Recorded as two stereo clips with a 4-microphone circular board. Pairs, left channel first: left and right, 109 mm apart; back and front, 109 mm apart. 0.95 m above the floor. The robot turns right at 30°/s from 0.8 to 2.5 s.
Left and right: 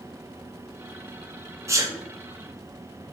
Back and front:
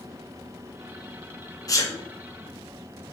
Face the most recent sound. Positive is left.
turn(degrees=-115)